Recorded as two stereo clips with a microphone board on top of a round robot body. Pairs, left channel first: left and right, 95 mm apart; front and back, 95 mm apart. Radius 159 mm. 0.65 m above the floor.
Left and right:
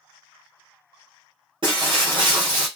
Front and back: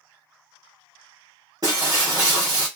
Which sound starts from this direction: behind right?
Breaking glass, at 1.6 s.